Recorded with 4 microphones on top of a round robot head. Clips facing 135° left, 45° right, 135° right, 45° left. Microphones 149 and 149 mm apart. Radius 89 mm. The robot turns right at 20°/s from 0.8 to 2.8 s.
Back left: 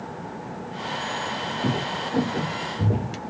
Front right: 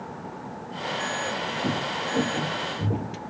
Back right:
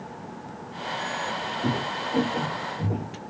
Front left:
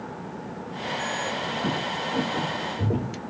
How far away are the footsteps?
About 1.4 m.